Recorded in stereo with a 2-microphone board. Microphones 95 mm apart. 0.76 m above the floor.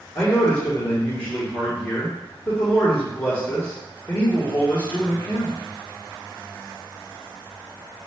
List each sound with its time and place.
0.1 s a man speaking: 45° left (ahead or behind), 1.2 m